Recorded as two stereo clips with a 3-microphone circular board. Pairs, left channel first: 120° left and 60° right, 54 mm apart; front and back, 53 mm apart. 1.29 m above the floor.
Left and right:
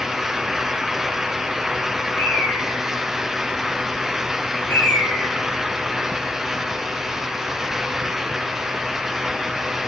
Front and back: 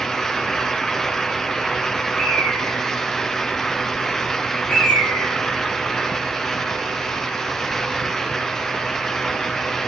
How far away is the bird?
About 7 m.